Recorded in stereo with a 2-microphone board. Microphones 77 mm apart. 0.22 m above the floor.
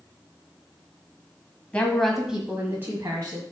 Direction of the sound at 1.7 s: 15° left (ahead or behind).